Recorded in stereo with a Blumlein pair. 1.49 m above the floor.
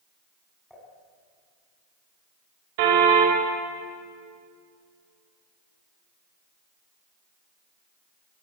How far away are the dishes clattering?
About 7.5 m.